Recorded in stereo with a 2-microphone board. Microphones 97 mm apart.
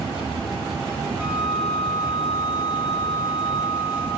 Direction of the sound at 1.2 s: 10° right (ahead or behind).